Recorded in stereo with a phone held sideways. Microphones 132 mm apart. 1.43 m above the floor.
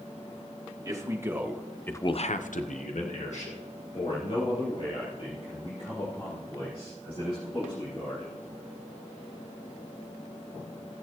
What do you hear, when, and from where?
0.8 s a man speaking: 25° right (ahead or behind), 1.9 m; by 8.4 s 50° left (ahead or behind), 8.5 m